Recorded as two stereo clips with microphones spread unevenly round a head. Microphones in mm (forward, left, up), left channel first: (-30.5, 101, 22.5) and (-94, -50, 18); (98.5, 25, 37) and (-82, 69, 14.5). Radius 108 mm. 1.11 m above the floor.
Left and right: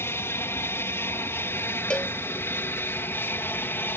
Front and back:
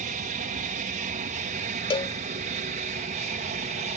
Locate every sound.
0.0 s an aircraft: 140° left
1.9 s a cowbell: 10° right